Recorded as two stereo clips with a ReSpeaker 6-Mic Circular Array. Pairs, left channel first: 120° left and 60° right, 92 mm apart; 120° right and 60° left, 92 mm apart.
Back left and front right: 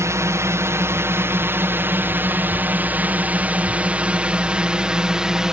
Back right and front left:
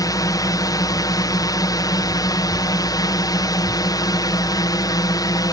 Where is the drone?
100° right; by 5.5 s 140° right.